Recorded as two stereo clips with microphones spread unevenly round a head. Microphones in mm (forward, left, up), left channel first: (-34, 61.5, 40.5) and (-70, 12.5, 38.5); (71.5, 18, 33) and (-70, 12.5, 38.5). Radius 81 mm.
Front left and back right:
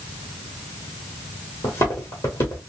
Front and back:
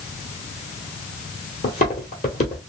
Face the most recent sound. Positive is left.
turn(degrees=20)